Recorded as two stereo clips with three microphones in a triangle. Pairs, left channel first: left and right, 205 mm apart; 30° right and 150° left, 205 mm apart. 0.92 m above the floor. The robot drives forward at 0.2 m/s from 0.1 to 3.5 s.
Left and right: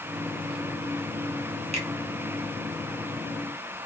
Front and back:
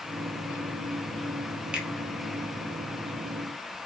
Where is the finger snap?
125° right, 0.6 m; by 1.9 s 130° right, 0.7 m.